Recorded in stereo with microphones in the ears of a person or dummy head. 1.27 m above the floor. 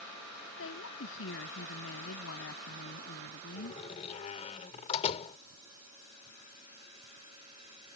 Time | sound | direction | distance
0.6 | a woman speaking | 85° left | ?
3.6 | a door slam | 40° left (ahead or behind) | ?